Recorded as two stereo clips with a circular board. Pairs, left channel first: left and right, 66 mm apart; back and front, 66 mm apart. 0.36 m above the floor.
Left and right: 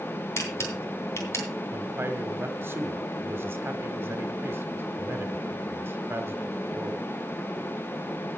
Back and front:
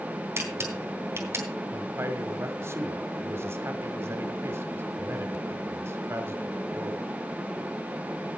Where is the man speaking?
40° right, 1.6 m.